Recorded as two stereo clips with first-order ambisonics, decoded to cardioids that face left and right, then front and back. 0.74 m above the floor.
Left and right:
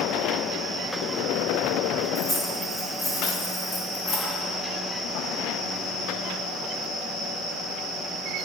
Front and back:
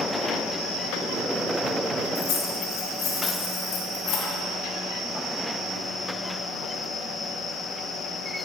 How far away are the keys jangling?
About 1.5 m.